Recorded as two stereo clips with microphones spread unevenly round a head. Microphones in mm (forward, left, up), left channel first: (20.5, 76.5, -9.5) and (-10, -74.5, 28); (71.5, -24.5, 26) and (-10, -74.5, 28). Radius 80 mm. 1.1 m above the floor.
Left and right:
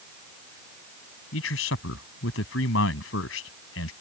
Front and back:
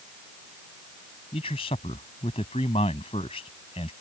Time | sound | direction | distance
1.3 | a man speaking | 90° left | ?